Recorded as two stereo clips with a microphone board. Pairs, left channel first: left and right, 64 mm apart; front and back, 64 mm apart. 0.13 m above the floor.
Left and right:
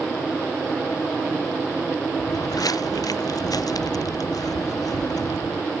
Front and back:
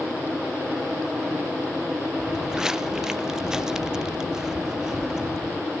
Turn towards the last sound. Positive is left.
turn(degrees=100)